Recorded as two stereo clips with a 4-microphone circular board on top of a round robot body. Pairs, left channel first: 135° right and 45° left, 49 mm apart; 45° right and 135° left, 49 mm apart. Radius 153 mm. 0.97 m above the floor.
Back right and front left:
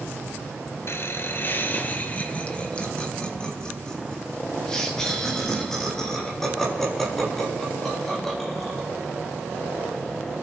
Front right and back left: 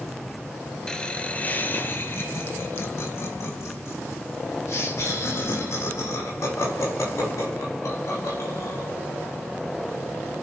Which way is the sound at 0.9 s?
120° right.